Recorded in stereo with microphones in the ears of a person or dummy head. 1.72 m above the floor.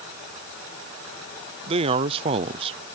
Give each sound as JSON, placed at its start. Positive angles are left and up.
{"t": 1.7, "sound": "a man speaking", "side_deg": -30}